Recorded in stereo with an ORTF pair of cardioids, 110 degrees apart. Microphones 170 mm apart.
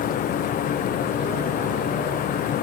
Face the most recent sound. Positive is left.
turn(degrees=55)